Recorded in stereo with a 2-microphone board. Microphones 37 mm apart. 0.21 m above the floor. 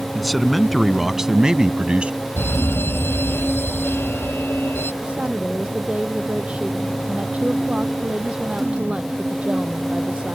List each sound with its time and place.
0.1 s a man speaking: 5° left (ahead or behind); by 2.2 s 30° right (ahead or behind)
2.4 s a fire alarm: 80° left
5.0 s a woman speaking: 35° right (ahead or behind)